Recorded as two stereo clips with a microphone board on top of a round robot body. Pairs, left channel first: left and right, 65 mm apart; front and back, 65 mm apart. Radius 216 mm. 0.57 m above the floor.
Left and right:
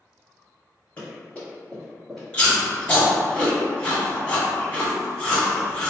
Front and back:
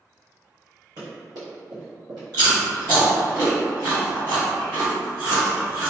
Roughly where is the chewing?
Behind.